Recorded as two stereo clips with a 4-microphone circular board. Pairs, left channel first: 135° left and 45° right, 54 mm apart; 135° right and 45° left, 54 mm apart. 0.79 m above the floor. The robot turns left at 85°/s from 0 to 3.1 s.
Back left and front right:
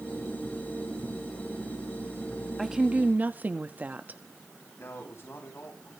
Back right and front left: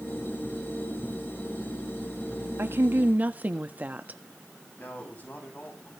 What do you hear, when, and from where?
2.6 s a woman speaking: 40° left, 1.3 m; by 4.2 s straight ahead, 1.3 m
4.8 s a man speaking: 170° left, 6.5 m